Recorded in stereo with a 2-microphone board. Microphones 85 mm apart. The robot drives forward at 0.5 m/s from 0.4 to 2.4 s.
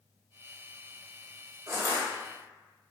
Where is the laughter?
I don't hear laughter.